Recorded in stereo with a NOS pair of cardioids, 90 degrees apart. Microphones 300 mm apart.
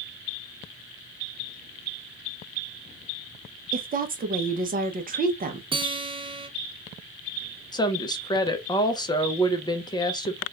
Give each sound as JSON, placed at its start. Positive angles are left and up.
{"t": 3.7, "sound": "a woman speaking", "azimuth_deg": -30, "distance_m": 0.8}
{"t": 5.7, "sound": "a guitar", "azimuth_deg": -15, "distance_m": 0.7}
{"t": 7.7, "sound": "a woman speaking", "azimuth_deg": 15, "distance_m": 0.7}